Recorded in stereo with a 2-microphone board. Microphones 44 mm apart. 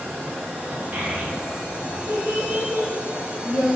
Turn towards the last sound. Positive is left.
turn(degrees=-55)  # may be behind; listen again after turning